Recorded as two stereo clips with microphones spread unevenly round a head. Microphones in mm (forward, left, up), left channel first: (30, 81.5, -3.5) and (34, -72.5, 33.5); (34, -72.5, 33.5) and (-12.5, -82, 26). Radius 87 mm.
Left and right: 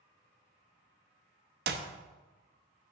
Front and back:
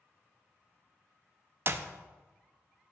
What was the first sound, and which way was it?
A clap, 130° right.